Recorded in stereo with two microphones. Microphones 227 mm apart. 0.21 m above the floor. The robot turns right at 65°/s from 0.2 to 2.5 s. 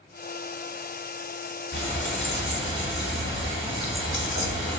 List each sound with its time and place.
1.7 s frying: 60° left, 1.3 m; by 4.8 s 110° left, 1.3 m